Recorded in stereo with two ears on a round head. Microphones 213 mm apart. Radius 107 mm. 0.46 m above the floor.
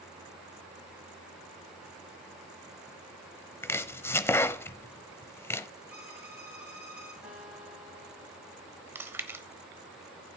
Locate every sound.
3.6 s chopping: 10° left (ahead or behind), 0.5 m
5.9 s a violin: 5° right (ahead or behind), 8 m
7.2 s a guitar: 5° right (ahead or behind), 7.5 m
8.9 s chewing: 10° right (ahead or behind), 1.1 m